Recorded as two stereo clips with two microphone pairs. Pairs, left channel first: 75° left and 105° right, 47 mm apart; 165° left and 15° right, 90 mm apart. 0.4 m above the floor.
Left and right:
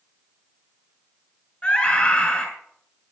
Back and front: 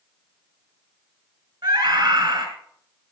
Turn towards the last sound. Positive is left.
turn(degrees=20)